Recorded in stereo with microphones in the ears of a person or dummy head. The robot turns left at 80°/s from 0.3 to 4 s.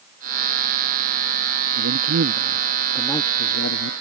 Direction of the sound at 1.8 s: 85° right.